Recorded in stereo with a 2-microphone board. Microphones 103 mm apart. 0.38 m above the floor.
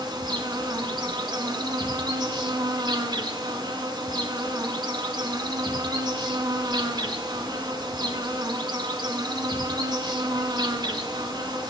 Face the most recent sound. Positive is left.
turn(degrees=-45)  # may be behind; listen again after turning